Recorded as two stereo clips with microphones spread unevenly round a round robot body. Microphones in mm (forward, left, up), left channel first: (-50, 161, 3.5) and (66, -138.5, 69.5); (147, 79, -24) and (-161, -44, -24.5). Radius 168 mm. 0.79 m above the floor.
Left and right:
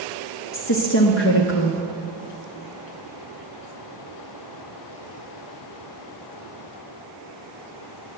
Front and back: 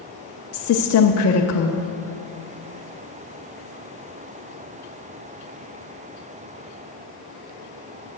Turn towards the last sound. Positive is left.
turn(degrees=65)